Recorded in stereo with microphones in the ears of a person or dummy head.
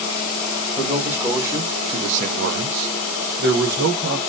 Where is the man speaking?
5° right (ahead or behind), 1.1 m; by 4.2 s 50° right (ahead or behind), 1.0 m.